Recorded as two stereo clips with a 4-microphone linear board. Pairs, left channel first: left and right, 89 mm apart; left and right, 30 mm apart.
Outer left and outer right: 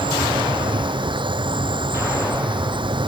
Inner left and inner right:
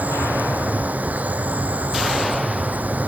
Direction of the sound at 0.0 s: 60° right (ahead or behind).